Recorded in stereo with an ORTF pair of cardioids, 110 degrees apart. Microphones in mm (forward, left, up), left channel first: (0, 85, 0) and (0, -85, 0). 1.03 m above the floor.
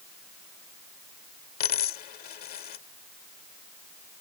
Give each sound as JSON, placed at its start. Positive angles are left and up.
{"t": 1.6, "sound": "a dropped coin", "azimuth_deg": 65}